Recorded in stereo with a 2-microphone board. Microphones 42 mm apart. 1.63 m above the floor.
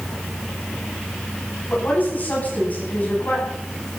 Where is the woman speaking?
45° left (ahead or behind), 10 m.